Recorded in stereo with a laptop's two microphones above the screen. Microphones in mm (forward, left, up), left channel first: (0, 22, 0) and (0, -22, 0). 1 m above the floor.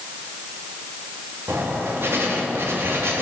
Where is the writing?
70° right (ahead or behind), 2.5 m.